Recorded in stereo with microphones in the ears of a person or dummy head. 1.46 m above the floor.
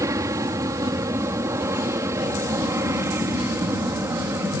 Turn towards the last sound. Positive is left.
turn(degrees=-15)  # may be behind; listen again after turning